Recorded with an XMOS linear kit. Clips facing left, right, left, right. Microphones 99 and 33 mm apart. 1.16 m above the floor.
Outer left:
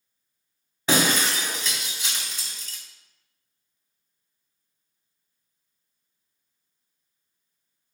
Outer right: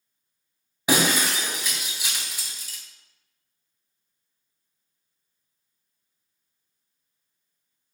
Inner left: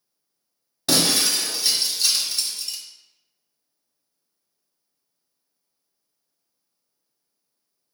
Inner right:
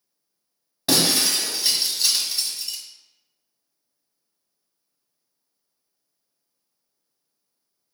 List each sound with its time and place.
0.9 s breaking glass: 10° right (ahead or behind), 1.7 m